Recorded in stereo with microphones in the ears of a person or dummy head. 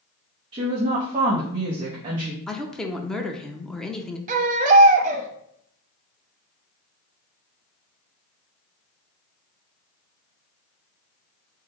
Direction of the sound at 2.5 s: 10° left (ahead or behind).